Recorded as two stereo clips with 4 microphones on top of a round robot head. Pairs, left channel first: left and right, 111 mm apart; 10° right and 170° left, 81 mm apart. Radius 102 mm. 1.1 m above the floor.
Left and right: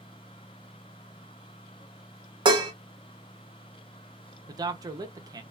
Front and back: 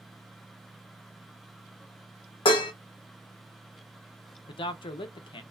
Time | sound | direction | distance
2.5 | dishes clattering | 35° right | 0.6 m
4.5 | a man speaking | 30° right | 0.5 m